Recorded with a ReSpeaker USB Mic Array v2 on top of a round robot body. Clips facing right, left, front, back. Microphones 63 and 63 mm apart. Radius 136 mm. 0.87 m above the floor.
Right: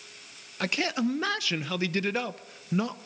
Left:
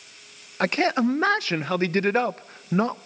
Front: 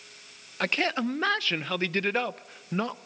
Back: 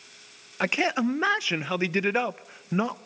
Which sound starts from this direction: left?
A man speaking, at 0.6 s.